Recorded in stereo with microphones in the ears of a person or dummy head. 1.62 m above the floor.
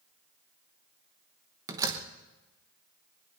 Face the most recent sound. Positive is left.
turn(degrees=-15)  # may be behind; listen again after turning